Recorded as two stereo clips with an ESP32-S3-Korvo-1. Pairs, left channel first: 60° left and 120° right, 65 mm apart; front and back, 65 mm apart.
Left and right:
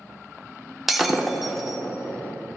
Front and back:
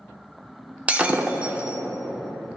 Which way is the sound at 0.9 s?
160° left.